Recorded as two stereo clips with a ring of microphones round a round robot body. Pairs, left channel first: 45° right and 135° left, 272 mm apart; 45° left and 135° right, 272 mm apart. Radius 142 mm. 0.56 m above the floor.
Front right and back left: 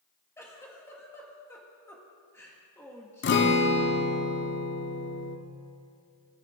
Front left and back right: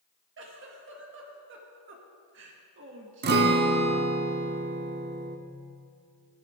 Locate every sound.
0.4 s a giggle: 120° right, 1.4 m
3.2 s a guitar: 85° right, 0.8 m